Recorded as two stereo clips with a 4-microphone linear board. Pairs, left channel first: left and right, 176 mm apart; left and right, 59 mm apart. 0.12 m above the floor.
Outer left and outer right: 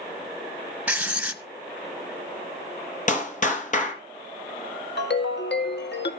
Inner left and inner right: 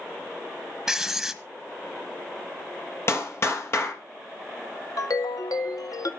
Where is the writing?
5° right (ahead or behind), 1.4 m.